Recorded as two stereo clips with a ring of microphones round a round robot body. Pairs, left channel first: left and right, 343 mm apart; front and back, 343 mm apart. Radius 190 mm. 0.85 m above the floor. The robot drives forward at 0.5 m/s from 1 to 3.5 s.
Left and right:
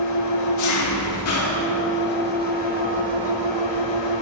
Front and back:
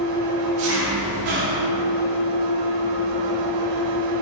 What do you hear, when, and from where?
0.0 s an engine running: 130° left, 0.8 m; by 4.2 s 160° left, 1.9 m